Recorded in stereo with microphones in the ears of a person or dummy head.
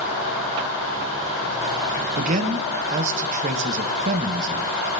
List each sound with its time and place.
2.2 s a man speaking: 40° right (ahead or behind), 1.1 m